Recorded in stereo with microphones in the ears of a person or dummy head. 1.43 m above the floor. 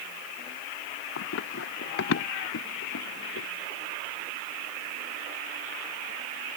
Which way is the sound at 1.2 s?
60° left (ahead or behind).